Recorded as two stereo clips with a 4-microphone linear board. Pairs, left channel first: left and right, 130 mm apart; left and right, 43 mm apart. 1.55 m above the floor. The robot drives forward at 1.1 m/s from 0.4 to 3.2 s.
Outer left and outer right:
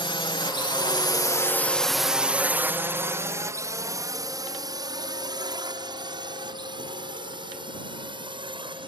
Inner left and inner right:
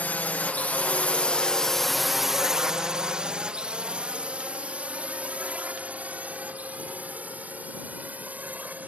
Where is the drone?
40° left (ahead or behind); by 8.9 s 40° right (ahead or behind).